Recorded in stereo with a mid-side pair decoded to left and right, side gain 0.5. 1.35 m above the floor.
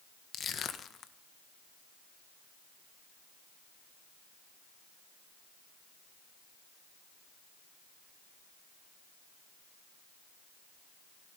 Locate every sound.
0.3 s crushing: 50° left, 1.5 m